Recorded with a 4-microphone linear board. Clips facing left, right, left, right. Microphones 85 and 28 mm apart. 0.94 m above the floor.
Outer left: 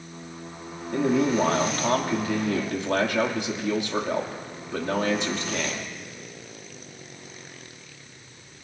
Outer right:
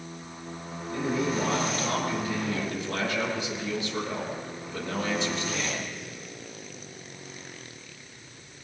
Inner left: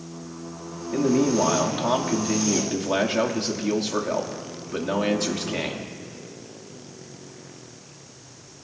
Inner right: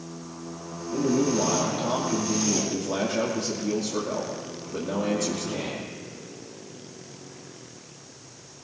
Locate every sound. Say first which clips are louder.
0.9 s a man speaking: outer left 6 dB, inner left 3 dB; 65° left (ahead or behind), 2 m